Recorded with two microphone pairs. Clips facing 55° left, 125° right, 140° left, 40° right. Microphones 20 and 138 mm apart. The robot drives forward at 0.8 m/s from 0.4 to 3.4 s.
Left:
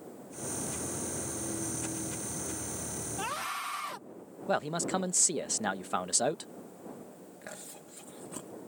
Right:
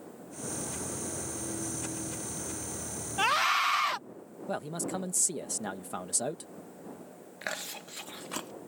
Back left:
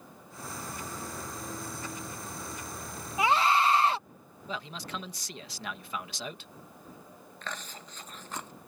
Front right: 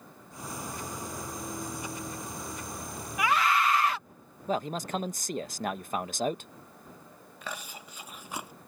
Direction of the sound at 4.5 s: Straight ahead.